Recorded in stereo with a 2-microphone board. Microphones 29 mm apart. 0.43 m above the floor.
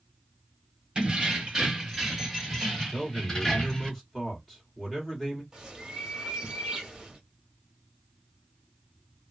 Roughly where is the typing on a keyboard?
I don't hear typing on a keyboard.